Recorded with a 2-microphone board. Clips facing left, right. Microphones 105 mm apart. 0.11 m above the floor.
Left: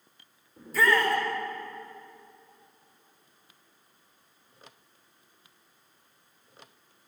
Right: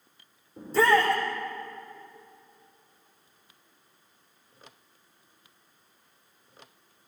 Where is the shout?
30° right (ahead or behind), 7.5 m.